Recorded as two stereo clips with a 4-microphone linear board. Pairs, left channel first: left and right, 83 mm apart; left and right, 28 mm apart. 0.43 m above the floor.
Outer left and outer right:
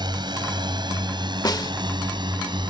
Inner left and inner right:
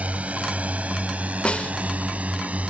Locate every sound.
0.0 s a drone: 60° right (ahead or behind); by 2.7 s 65° right (ahead or behind)
1.4 s a snare drum: 50° left (ahead or behind)